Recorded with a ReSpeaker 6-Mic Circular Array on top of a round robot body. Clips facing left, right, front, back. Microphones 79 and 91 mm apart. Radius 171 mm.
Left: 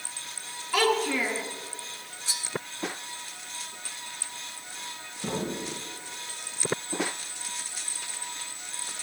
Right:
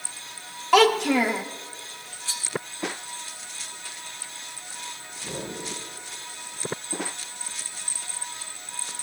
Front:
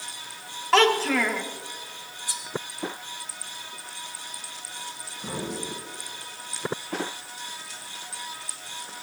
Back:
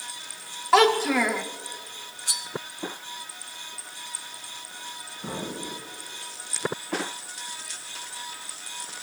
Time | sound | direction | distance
0.7 | a child speaking | 100° right | 1.5 m
2.3 | cutlery clinking | 160° left | 1.6 m
5.2 | an explosion | 95° left | 8 m